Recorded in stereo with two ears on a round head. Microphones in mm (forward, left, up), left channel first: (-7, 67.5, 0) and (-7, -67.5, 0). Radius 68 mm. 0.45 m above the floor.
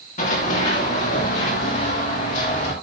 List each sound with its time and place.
0.2 s running footsteps: 55° left (ahead or behind), 9.5 m